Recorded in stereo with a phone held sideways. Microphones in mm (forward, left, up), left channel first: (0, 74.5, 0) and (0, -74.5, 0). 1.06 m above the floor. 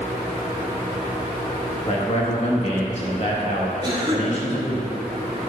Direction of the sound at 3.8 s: 30° right (ahead or behind).